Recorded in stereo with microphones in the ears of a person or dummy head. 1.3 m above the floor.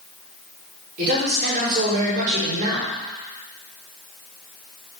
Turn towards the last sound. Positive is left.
turn(degrees=-45)  # may be behind; listen again after turning